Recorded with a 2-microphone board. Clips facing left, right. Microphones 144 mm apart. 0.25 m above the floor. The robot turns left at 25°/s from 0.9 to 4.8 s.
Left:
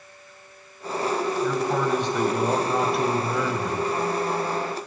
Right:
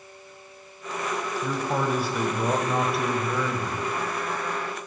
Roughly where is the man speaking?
Centre.